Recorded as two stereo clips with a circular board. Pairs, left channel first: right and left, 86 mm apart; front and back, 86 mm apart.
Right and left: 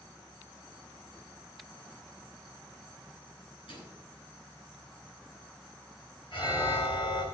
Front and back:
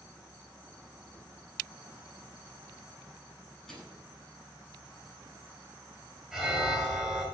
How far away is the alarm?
About 5 m.